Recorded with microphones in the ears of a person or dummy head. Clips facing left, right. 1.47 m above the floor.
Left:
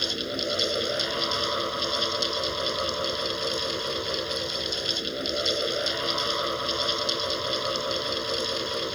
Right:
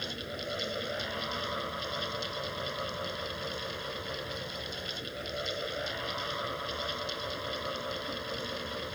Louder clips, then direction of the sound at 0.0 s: Left 8 dB; 65° left (ahead or behind).